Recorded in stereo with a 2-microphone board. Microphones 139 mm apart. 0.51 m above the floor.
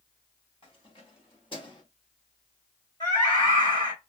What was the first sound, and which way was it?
Keys jangling, 45° left (ahead or behind).